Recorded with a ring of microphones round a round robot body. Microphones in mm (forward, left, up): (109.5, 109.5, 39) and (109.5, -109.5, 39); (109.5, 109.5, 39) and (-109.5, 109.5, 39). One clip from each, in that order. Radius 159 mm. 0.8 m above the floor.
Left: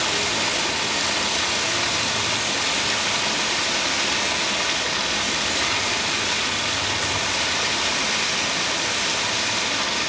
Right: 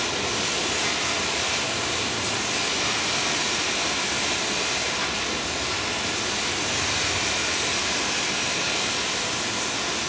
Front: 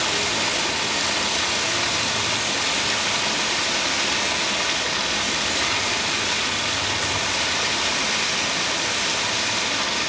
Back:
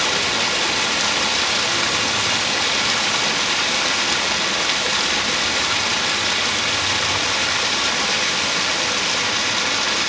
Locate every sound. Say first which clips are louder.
0.0 s running water: left 4 dB, back 3 dB; 140° left, 0.9 m